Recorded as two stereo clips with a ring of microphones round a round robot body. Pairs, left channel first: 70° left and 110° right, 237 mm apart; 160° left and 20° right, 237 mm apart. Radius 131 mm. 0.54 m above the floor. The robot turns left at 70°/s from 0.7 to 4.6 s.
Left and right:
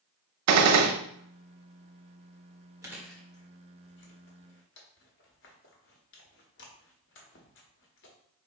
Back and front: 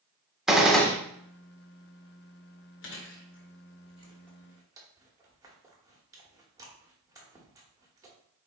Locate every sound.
0.5 s a gunshot: 110° right, 0.6 m; by 0.9 s 130° right, 0.6 m
2.8 s chewing: 175° left, 1.1 m; by 8.2 s 50° left, 1.1 m